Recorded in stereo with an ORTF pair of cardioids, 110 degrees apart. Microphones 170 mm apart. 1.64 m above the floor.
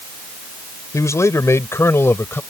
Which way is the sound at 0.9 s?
15° left.